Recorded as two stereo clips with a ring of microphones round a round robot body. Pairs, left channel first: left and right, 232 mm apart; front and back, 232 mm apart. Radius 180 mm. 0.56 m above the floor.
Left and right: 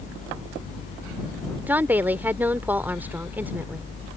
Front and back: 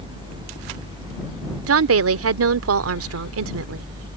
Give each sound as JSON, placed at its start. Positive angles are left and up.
{"t": 1.7, "sound": "a woman speaking", "azimuth_deg": -175}